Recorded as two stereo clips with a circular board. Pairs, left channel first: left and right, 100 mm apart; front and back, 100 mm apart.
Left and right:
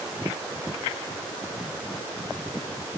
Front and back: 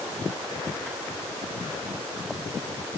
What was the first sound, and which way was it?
Only background noise.